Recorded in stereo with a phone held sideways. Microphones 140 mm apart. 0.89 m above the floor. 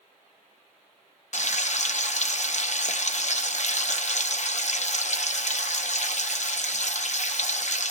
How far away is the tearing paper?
No tearing paper in this recording.